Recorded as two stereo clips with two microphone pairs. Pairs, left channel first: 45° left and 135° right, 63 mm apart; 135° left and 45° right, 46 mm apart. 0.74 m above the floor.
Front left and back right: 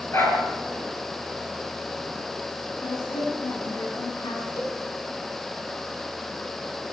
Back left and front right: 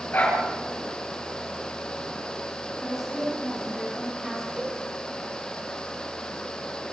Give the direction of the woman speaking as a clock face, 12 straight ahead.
11 o'clock.